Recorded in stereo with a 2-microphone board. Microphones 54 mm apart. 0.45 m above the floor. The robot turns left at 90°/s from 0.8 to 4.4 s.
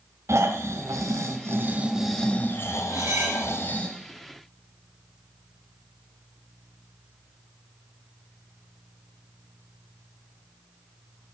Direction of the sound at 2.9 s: 110° right.